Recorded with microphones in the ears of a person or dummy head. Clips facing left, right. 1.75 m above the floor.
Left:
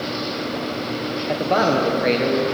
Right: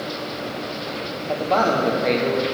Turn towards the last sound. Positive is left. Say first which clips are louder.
# left 1 dB
turn(degrees=20)  # may be behind; listen again after turning